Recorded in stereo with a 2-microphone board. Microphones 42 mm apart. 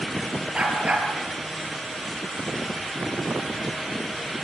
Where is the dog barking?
25° right (ahead or behind), 5.5 m.